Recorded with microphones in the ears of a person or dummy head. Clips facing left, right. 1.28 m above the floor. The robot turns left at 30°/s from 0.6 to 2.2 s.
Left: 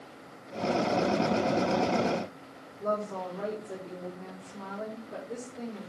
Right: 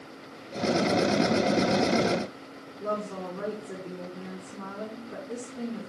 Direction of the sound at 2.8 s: 25° right (ahead or behind).